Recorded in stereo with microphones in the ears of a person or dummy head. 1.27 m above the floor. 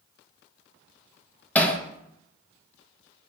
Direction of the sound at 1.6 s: 10° left (ahead or behind).